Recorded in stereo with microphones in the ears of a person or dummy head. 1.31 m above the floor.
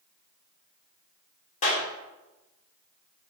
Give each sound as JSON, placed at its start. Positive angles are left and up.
{"t": 1.6, "sound": "a clap", "side_deg": 40, "distance_m": 3.5}